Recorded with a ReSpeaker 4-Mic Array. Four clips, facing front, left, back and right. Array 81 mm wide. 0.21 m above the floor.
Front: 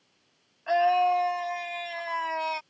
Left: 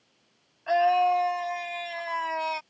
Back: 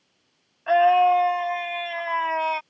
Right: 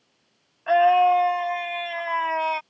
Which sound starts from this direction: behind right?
A scream, at 0.7 s.